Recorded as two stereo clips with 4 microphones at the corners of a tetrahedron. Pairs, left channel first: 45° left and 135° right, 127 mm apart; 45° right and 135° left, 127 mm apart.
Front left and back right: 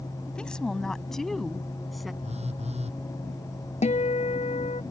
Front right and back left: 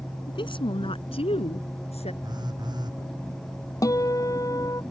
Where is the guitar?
20° left.